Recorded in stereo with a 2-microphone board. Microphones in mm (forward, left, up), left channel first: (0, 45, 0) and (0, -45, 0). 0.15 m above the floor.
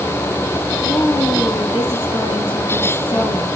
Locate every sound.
0.8 s a woman speaking: 70° left (ahead or behind), 4 m